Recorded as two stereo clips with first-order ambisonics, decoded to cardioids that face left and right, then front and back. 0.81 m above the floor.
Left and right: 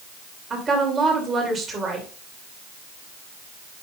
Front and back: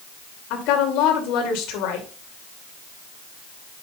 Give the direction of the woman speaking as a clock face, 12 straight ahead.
1 o'clock.